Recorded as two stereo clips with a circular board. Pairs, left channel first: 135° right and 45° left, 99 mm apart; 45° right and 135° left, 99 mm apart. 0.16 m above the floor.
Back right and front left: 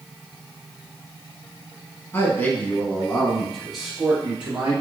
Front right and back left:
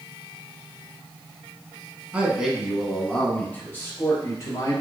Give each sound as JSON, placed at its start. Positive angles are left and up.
{"t": 2.1, "sound": "a man speaking", "azimuth_deg": -165, "distance_m": 1.4}